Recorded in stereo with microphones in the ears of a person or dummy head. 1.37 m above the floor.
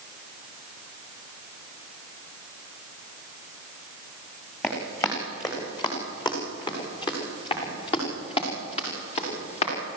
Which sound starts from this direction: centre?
Running footsteps, at 4.6 s.